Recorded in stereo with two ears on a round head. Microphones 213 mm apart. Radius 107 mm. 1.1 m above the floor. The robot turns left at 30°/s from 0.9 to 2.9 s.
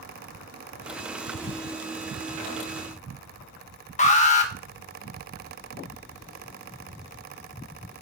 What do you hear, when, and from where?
4.0 s an alarm: 30° left (ahead or behind), 1.2 m